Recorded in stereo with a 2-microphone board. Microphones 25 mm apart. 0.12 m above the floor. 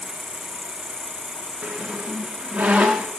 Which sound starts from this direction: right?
A squeak, at 1.6 s.